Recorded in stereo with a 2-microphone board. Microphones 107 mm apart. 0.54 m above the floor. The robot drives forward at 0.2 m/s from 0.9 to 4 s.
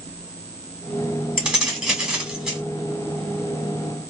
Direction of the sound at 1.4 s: 10° right (ahead or behind).